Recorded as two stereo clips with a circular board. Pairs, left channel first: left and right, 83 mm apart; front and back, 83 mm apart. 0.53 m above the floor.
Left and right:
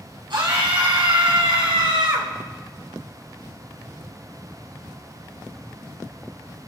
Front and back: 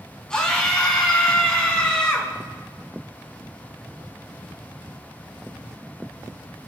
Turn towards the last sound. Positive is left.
turn(degrees=-80)